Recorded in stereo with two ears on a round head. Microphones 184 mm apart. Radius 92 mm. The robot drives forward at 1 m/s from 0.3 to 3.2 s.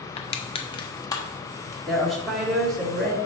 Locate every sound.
0.2 s crushing: 25° left (ahead or behind), 0.7 m; by 1.8 s 10° left (ahead or behind), 1.7 m
1.9 s a woman speaking: centre (ahead or behind), 1.6 m